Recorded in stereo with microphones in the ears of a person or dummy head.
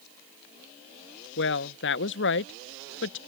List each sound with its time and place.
1.4 s a woman speaking: 60° left (ahead or behind)